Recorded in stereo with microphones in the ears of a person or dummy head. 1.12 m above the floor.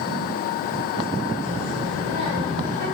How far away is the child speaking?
About 7.5 m.